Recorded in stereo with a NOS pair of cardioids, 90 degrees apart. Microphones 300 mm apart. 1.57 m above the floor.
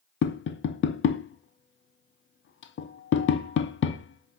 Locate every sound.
0.2 s tapping: 40° left, 0.6 m